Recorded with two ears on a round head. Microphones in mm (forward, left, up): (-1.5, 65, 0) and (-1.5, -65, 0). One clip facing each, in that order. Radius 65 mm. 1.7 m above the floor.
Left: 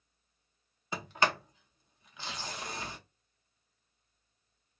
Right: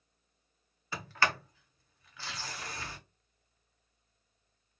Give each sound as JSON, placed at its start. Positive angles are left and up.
{"t": 0.9, "sound": "a sliding door", "side_deg": 15, "distance_m": 0.5}